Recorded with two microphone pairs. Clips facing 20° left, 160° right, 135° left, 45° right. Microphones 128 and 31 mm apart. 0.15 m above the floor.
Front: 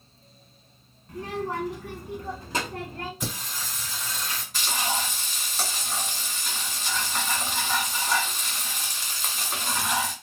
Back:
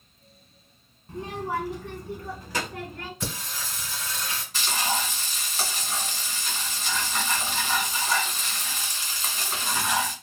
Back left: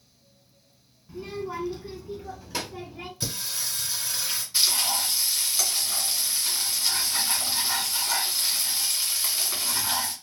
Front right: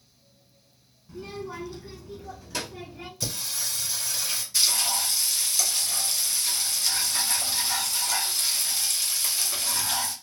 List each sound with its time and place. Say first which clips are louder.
1.1 s a child speaking: even, back left 3 dB; 150° right, 0.7 m; by 3.1 s 65° left, 1.1 m
3.2 s singing: even, even; 75° left, 1.4 m
4.5 s frying: back 1 dB, back left 1 dB; 105° left, 1.4 m